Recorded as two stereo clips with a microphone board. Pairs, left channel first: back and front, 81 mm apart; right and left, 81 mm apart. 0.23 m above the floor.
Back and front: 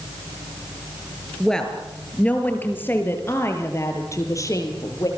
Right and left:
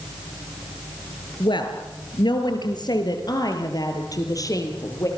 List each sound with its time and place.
1.4 s a woman speaking: 95° right, 4.5 m; by 5.1 s 135° right, 7 m